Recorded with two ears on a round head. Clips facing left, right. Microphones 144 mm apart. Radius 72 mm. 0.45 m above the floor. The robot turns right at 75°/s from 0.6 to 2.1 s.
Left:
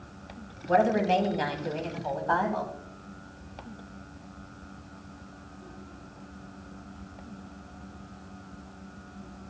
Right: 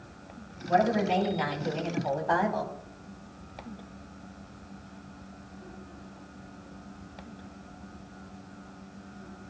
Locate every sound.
0.7 s a woman speaking: 90° left, 2.5 m; by 2.7 s 160° right, 2.5 m